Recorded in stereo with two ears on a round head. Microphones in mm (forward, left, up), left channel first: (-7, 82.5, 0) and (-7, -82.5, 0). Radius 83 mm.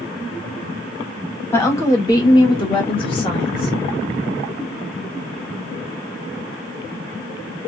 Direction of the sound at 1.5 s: 15° left (ahead or behind).